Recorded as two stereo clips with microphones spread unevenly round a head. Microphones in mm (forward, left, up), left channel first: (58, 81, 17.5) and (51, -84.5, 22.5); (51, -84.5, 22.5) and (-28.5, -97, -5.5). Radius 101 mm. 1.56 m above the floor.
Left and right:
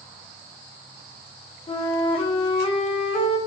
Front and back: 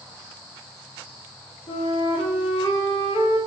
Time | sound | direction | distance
1.7 | a flute | 30° left | 1.3 m